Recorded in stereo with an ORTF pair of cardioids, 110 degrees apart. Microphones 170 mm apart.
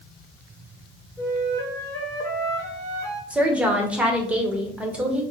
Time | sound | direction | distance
1.2 | a flute | 20° left | 2 m
3.3 | a woman speaking | 5° right | 1.2 m